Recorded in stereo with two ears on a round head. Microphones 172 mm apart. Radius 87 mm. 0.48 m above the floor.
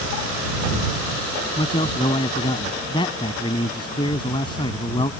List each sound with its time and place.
1.6 s a man speaking: 25° left (ahead or behind)